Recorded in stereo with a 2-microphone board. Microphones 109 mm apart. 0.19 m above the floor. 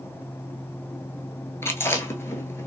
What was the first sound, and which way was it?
Chewing, 25° left (ahead or behind).